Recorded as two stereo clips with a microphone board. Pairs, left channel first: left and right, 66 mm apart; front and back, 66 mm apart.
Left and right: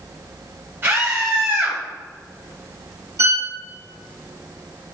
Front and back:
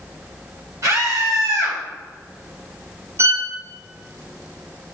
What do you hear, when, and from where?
0.8 s a scream: 140° right, 3.5 m
3.2 s a violin: 130° right, 1.4 m